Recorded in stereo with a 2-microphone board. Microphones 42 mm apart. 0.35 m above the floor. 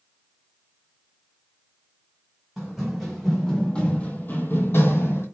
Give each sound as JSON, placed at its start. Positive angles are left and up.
{"t": 2.6, "sound": "running footsteps", "side_deg": 0, "distance_m": 1.1}